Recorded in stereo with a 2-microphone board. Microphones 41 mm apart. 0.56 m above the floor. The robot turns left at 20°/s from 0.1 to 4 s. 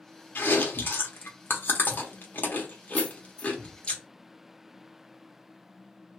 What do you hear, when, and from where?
0.3 s chewing: 60° left (ahead or behind), 0.9 m; by 3.9 s 30° left (ahead or behind), 0.9 m
2.9 s keys jangling: 10° right (ahead or behind), 1.1 m; by 3.5 s 20° right (ahead or behind), 1.1 m